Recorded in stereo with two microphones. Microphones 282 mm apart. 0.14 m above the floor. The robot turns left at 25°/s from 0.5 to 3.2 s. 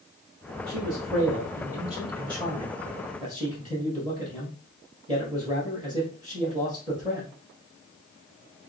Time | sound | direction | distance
0.7 | a man speaking | 60° right (ahead or behind) | 2 m